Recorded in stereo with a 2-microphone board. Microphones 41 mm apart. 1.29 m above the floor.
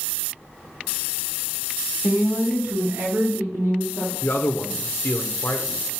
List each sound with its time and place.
2.0 s a woman speaking: 35° right (ahead or behind), 1.1 m; by 4.1 s 70° right (ahead or behind), 4 m
4.2 s a man speaking: 70° left (ahead or behind), 0.7 m